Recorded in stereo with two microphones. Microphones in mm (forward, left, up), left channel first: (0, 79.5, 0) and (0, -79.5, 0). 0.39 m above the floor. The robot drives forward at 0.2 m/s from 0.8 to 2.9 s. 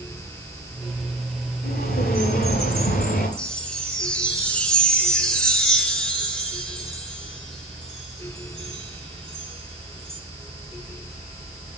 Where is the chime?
5° left (ahead or behind), 1.5 m.